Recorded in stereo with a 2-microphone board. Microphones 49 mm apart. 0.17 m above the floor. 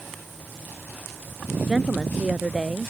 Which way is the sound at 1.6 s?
15° right (ahead or behind).